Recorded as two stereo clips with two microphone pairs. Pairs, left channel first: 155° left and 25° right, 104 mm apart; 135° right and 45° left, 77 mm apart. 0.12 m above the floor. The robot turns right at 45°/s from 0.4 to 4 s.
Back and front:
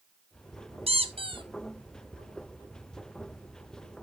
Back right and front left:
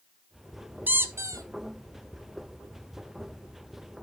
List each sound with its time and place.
0.9 s a squeak: 20° right, 0.9 m; by 1.4 s 10° left, 0.9 m